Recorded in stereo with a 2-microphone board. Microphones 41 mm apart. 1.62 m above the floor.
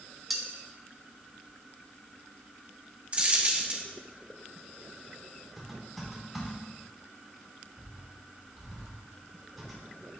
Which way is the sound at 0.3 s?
Centre (ahead or behind).